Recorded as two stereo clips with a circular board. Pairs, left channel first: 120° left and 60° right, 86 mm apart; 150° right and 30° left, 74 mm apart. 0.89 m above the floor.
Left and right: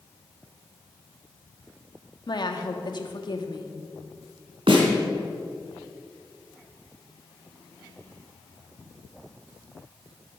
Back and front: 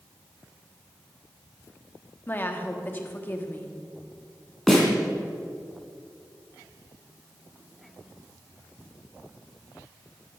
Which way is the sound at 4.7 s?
60° right.